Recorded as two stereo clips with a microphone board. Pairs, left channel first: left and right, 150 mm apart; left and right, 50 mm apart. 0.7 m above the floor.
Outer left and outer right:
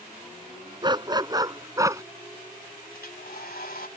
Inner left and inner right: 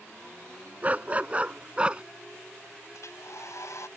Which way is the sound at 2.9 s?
80° left.